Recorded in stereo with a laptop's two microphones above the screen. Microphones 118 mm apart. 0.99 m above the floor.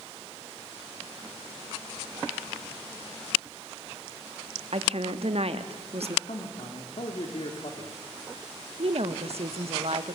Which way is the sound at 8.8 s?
60° right (ahead or behind).